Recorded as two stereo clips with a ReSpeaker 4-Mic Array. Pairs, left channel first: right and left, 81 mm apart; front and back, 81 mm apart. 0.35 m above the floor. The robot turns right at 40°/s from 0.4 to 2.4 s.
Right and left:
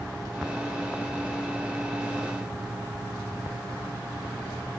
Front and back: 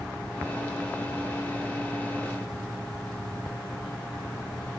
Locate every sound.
Only background noise.